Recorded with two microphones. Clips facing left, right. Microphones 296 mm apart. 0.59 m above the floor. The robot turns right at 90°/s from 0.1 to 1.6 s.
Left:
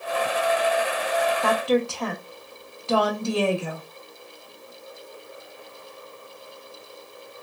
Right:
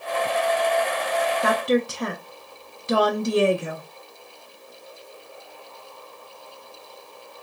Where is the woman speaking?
20° right (ahead or behind), 0.6 m.